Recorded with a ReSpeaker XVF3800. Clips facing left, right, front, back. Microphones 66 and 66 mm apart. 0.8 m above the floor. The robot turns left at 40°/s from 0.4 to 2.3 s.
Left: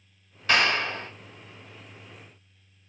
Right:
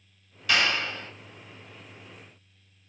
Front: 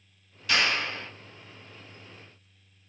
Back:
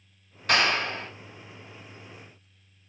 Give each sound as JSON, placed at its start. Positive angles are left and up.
{"t": 0.5, "sound": "a clap", "azimuth_deg": 140, "distance_m": 1.7}